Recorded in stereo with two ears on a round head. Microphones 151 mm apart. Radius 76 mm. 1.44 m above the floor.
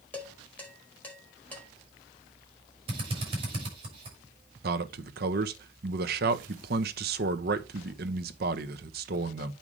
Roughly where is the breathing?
No breathing in this recording.